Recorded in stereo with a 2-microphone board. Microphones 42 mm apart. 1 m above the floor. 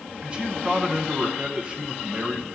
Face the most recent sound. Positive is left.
turn(degrees=-25)  # may be behind; listen again after turning